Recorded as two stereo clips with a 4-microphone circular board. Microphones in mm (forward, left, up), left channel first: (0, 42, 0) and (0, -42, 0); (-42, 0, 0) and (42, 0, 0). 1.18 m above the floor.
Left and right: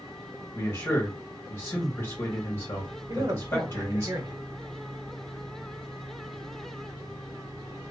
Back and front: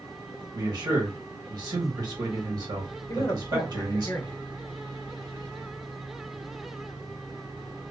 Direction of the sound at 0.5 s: 35° left.